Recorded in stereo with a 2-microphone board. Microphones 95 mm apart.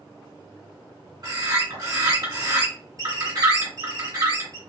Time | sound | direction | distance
1.2 | a bird | 45° right (ahead or behind) | 1.9 m